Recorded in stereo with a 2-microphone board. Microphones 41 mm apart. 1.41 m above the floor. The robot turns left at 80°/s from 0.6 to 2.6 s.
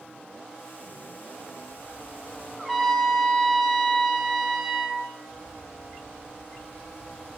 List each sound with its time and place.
2.6 s a trumpet: 5° right (ahead or behind), 1.4 m